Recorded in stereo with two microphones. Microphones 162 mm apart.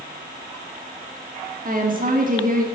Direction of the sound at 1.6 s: 55° right (ahead or behind).